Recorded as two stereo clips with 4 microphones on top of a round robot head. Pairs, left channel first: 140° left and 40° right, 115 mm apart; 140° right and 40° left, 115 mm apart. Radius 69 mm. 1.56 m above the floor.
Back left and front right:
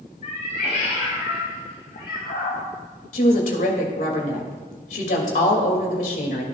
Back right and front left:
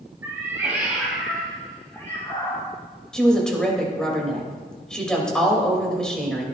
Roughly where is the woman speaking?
Behind left.